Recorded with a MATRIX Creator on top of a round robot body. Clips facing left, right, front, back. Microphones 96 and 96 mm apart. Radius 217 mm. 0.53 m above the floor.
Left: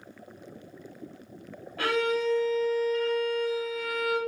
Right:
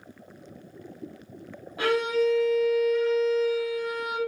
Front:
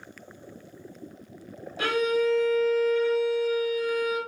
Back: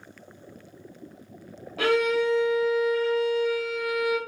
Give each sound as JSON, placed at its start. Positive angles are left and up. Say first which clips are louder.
{"t": 1.8, "sound": "a violin", "louder": "right 3 dB, back 2 dB", "azimuth_deg": -165, "distance_m": 0.5}